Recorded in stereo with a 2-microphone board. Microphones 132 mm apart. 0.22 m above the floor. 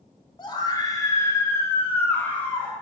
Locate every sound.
0.4 s a scream: 35° left (ahead or behind), 1.3 m; by 2.7 s 5° left (ahead or behind), 2 m